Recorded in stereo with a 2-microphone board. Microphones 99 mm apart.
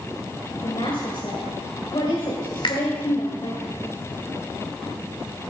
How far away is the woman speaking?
About 2.5 m.